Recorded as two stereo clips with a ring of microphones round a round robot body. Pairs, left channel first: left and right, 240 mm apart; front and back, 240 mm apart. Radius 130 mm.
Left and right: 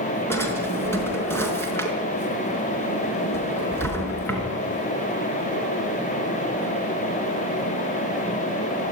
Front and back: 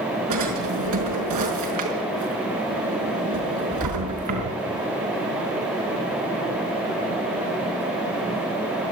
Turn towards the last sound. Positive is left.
turn(degrees=170)